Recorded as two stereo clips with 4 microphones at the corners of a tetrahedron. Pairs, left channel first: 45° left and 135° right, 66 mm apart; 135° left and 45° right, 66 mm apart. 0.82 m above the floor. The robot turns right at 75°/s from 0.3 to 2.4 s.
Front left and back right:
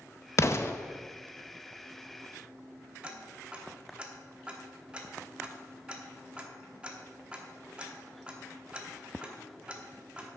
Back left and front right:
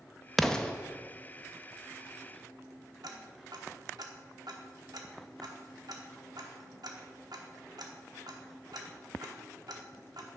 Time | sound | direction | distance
0.4 | an explosion | 45° left | 0.6 m
3.0 | ticking | 60° right | 1.0 m